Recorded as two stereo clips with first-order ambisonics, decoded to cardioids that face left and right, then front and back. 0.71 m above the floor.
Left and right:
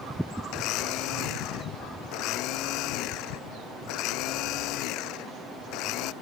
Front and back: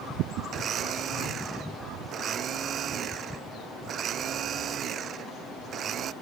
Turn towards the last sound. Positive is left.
turn(degrees=125)